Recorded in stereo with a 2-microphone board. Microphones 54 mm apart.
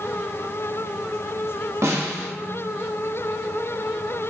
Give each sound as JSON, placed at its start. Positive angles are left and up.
{"t": 1.8, "sound": "a snare drum", "side_deg": -60, "distance_m": 2.0}